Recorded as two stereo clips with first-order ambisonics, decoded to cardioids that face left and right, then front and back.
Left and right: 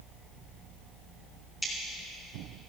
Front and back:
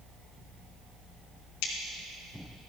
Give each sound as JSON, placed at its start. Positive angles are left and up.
{"t": 1.6, "sound": "scissors", "azimuth_deg": 10, "distance_m": 3.0}